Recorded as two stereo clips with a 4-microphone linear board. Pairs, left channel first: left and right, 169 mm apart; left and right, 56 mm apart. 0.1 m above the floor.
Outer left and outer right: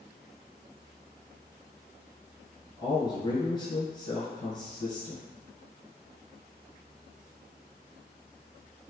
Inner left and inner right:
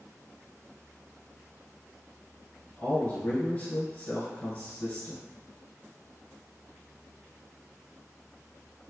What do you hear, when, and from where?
2.8 s a man speaking: 25° left (ahead or behind), 1.3 m